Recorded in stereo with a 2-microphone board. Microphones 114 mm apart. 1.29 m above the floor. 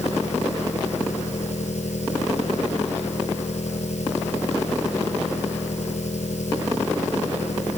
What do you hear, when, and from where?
0.0 s an engine running: 75° left (ahead or behind)